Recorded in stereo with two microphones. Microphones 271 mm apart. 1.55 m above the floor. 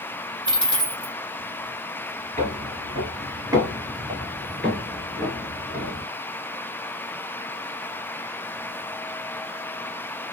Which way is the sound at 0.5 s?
15° right (ahead or behind).